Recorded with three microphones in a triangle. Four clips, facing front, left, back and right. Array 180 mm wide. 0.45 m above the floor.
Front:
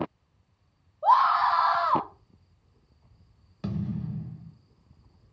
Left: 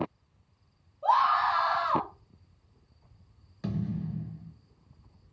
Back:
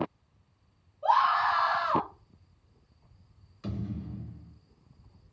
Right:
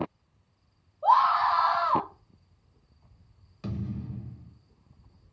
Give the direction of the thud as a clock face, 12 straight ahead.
12 o'clock.